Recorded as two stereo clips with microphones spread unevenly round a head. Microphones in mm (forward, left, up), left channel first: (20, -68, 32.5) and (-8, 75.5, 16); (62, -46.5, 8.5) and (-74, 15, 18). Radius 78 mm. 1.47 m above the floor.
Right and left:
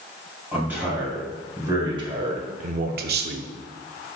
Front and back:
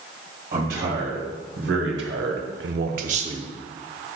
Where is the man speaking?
Straight behind, 2 m; by 3.5 s 85° left, 0.8 m.